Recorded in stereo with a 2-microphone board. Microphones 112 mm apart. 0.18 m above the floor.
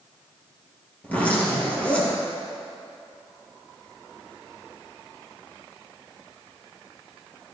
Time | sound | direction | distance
1.0 | a zipper | 15° left (ahead or behind) | 3.5 m